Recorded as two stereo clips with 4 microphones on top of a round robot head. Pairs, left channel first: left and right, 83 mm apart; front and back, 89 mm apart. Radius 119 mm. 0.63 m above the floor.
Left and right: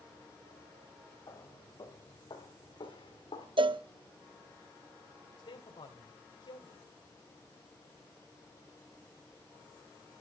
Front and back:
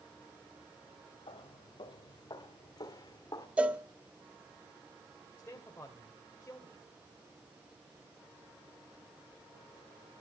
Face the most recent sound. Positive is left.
turn(degrees=65)